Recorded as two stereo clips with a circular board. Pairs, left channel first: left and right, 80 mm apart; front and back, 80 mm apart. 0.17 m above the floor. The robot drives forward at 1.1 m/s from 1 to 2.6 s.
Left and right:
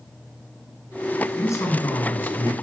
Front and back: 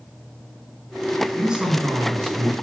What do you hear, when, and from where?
1.4 s a man speaking: 95° left, 2 m; by 2.5 s 135° left, 2.5 m